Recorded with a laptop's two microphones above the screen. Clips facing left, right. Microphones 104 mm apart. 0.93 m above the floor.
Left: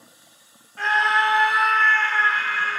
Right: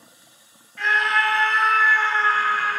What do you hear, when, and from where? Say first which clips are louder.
0.8 s a scream: left 1 dB; 35° left (ahead or behind), 1.3 m; by 2.8 s 50° right (ahead or behind), 1.1 m